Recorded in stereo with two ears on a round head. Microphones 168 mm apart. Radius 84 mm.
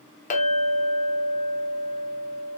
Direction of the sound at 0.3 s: 40° left (ahead or behind).